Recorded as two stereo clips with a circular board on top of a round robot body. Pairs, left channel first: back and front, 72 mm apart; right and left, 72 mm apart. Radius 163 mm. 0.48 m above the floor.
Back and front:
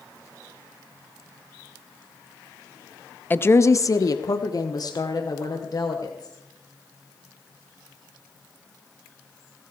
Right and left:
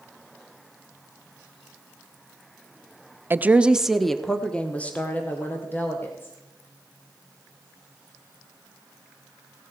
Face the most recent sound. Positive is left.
turn(degrees=-150)